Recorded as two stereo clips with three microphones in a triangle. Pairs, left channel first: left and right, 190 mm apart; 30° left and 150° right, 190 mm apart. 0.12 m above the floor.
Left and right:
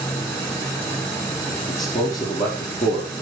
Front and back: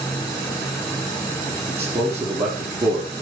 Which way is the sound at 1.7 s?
135° left.